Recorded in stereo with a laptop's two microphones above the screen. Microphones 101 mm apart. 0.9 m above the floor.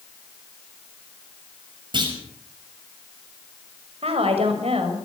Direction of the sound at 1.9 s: 50° right (ahead or behind).